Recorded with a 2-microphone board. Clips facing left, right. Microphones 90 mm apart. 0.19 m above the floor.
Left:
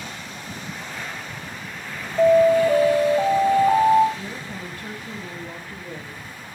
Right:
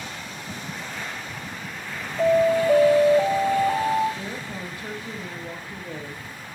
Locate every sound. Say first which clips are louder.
2.2 s an alarm: left 4 dB; 55° left (ahead or behind), 3.5 m
4.2 s a woman speaking: right 1 dB; 10° right (ahead or behind), 5 m